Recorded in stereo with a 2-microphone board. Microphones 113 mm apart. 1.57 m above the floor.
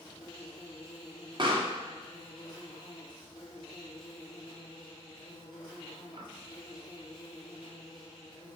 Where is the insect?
40° left (ahead or behind), 1.9 m.